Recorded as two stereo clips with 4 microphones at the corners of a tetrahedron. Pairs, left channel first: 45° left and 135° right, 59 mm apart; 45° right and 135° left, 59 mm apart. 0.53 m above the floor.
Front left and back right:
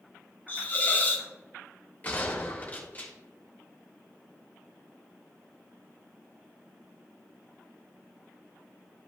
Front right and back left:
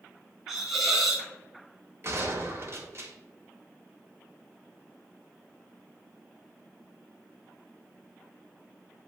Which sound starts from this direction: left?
A gunshot, at 2.0 s.